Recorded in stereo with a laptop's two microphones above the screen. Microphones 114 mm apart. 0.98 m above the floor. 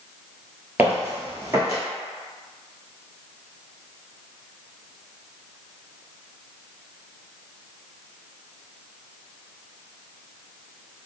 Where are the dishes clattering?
I don't hear dishes clattering.